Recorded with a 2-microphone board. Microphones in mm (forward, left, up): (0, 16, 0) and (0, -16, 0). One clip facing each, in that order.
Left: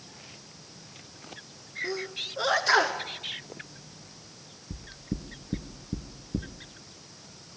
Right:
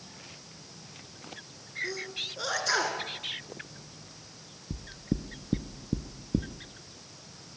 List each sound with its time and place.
1.8 s a sneeze: 25° left (ahead or behind), 1.4 m
4.7 s knocking: 35° right (ahead or behind), 1.5 m